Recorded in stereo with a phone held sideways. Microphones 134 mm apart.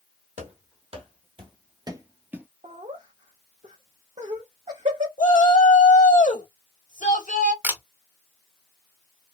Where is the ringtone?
I don't hear a ringtone.